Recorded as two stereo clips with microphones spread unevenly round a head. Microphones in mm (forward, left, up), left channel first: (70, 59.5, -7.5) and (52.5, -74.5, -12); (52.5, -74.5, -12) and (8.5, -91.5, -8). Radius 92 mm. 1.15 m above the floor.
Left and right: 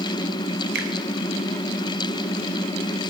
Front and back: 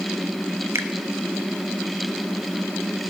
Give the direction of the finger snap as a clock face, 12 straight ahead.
4 o'clock.